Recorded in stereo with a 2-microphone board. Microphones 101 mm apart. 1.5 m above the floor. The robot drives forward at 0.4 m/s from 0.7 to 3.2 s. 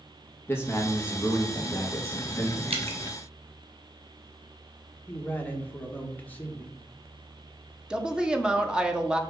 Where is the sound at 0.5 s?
25° left (ahead or behind), 1.5 m; by 2.6 s 15° left (ahead or behind), 2 m.